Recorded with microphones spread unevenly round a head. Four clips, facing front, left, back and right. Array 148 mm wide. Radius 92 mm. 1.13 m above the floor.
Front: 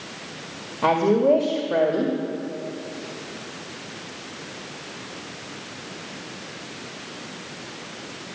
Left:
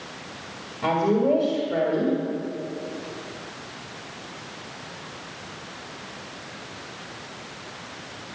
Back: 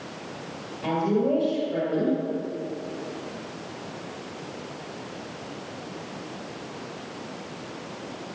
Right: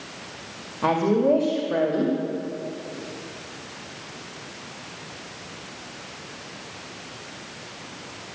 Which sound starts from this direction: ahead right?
A woman speaking, at 0.8 s.